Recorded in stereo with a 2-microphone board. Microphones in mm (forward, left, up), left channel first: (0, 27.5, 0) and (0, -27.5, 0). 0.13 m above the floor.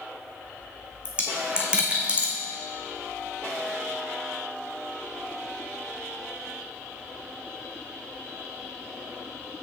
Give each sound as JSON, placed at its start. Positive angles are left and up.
{"t": 1.1, "sound": "a dropped coin", "side_deg": -20, "distance_m": 1.4}